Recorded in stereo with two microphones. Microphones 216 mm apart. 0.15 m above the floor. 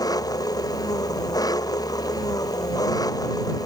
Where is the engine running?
15° left (ahead or behind).